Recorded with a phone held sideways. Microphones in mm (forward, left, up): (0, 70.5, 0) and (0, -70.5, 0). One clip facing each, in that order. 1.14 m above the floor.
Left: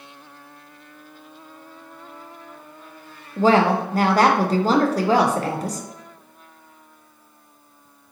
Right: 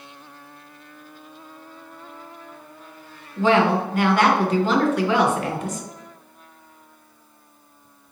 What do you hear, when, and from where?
3.4 s a woman speaking: 35° left (ahead or behind), 0.6 m